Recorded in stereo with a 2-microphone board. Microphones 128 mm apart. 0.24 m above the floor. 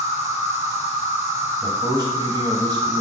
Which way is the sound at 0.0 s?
20° right (ahead or behind).